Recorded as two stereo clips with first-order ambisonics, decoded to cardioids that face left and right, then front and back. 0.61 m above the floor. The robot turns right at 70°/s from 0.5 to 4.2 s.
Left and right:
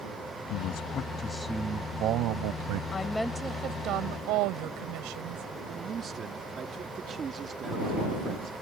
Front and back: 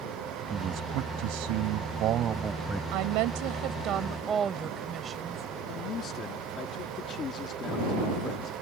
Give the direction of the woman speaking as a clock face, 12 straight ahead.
7 o'clock.